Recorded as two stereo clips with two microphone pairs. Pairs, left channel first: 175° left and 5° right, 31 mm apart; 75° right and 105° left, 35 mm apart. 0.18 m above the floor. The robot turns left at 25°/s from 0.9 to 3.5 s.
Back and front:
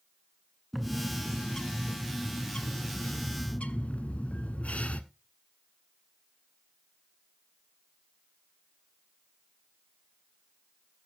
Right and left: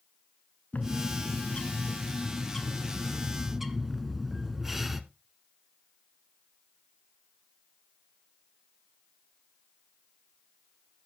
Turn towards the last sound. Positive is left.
turn(degrees=-175)